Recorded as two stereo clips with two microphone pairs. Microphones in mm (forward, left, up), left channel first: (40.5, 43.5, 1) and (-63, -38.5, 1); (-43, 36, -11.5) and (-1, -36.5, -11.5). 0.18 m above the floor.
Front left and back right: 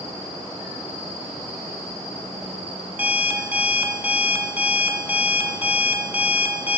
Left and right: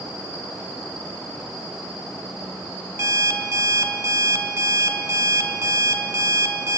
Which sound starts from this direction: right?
An alarm clock, at 3.0 s.